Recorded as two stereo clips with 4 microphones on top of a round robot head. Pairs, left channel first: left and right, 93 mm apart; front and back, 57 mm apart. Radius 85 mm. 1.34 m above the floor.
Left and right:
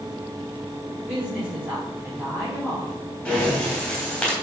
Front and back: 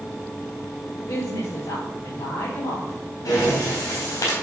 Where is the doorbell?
No doorbell in this recording.